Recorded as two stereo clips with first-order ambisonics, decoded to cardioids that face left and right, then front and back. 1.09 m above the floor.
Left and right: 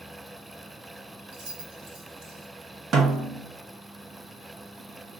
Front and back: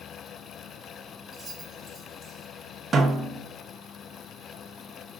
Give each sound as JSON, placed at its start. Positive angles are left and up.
{"t": 1.3, "sound": "keys jangling", "azimuth_deg": -95, "distance_m": 2.5}
{"t": 2.9, "sound": "a snare drum", "azimuth_deg": -120, "distance_m": 0.7}